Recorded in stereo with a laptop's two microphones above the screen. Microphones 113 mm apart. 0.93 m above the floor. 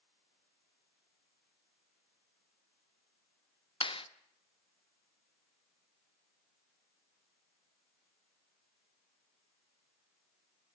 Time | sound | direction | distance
3.8 | a clap | 50° left (ahead or behind) | 1.1 m